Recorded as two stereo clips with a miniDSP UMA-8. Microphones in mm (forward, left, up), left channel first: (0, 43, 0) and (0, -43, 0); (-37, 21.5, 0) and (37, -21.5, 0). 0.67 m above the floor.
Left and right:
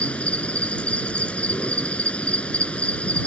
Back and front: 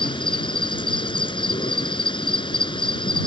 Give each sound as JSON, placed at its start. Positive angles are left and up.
{"t": 0.0, "sound": "an insect", "azimuth_deg": 165}